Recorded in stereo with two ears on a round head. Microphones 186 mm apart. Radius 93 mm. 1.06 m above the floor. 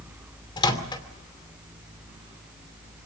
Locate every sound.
0.6 s a microwave: 20° left (ahead or behind), 2.5 m